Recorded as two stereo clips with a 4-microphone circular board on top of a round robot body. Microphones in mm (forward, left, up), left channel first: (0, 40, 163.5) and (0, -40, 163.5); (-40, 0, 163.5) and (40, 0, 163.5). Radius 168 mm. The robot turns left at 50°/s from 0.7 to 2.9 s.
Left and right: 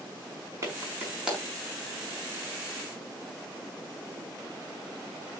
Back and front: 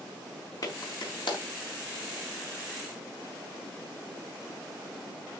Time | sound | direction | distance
0.6 | a clap | 145° right | 5 m